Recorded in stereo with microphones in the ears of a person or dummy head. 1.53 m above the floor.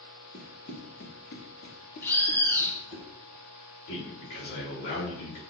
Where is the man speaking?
65° left (ahead or behind), 4 m.